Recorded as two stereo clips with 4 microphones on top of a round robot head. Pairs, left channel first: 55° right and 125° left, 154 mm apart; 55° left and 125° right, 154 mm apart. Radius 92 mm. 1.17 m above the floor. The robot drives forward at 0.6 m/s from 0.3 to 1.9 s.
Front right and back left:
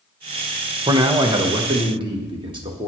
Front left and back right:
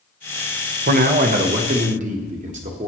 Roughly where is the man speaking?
Behind.